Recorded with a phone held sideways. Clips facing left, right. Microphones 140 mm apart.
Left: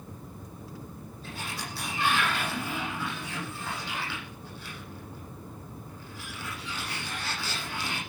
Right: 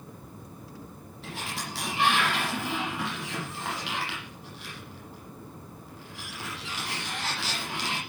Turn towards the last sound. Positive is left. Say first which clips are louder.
# right 2 dB
turn(degrees=-85)